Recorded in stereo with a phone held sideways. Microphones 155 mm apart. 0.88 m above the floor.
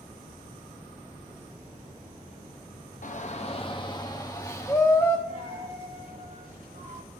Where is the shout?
55° left (ahead or behind), 0.6 m; by 5.2 s 15° left (ahead or behind), 1.5 m.